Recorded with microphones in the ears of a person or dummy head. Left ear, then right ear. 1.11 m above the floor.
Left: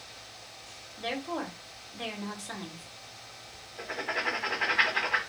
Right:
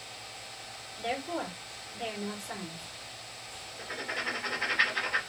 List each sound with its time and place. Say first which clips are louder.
1.0 s a woman speaking: even; 40° left (ahead or behind), 2.0 m
3.8 s writing: left 3 dB; 25° left (ahead or behind), 0.9 m